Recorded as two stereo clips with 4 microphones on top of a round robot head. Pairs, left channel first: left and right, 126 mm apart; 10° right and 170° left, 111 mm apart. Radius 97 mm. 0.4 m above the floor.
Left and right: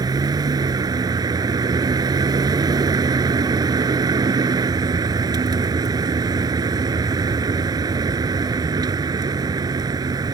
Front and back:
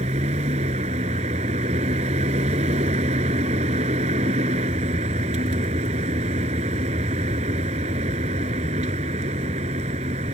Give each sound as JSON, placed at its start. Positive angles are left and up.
{"t": 0.0, "sound": "a vehicle", "azimuth_deg": -150}